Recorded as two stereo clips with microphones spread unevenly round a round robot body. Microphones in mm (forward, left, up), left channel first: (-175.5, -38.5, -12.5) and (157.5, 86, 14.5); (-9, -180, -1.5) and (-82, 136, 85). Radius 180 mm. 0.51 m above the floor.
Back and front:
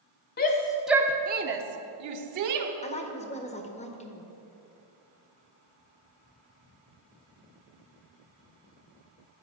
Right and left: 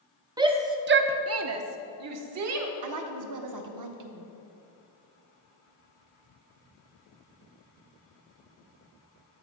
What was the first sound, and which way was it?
A shout, 160° right.